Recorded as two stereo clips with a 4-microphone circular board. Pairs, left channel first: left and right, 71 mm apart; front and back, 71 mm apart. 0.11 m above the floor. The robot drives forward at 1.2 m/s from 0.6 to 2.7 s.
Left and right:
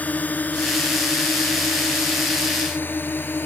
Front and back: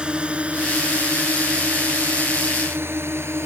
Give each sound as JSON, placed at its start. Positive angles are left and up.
{"t": 0.0, "sound": "a drone", "azimuth_deg": 125}